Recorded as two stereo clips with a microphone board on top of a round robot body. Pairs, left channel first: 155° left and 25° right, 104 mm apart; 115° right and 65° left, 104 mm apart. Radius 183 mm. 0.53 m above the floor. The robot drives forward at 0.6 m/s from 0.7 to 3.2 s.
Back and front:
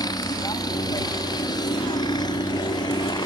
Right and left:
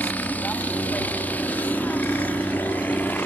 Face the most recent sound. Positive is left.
turn(degrees=180)